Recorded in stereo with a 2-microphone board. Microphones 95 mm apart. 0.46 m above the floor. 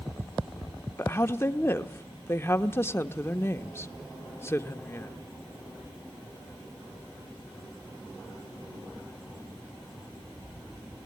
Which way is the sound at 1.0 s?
25° left (ahead or behind).